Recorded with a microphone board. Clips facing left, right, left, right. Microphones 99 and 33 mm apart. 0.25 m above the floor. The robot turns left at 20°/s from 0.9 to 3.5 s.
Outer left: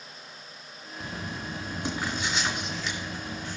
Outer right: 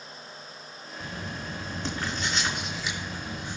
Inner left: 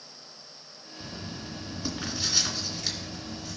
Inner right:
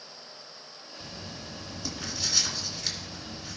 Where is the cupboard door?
I don't hear a cupboard door.